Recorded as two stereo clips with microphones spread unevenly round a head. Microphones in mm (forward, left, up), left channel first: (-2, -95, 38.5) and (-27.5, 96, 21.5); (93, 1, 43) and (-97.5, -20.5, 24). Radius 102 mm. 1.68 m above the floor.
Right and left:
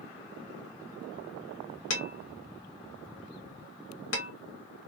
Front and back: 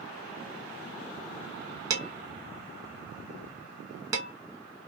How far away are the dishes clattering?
About 1.7 m.